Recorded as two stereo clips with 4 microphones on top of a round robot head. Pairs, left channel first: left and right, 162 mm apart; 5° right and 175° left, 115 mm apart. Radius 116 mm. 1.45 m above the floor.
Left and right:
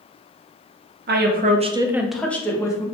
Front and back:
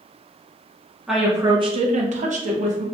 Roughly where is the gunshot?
No gunshot in this recording.